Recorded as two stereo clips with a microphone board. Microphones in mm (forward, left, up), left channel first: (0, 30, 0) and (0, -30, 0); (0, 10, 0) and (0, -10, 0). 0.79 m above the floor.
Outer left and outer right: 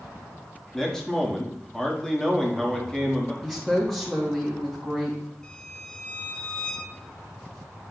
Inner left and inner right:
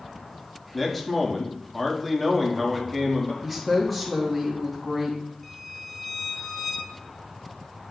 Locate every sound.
0.7 s a man speaking: 10° left (ahead or behind), 1.4 m
3.4 s a woman speaking: 10° left (ahead or behind), 1.1 m
5.4 s a violin: 10° left (ahead or behind), 1.2 m